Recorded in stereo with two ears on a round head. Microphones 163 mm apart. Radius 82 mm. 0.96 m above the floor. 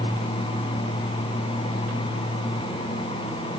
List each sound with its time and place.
Only background noise.